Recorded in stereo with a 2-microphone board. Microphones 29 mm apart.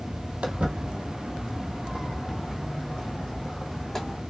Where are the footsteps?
50° right (ahead or behind), 1.5 m; by 4.2 s 20° left (ahead or behind), 2.5 m.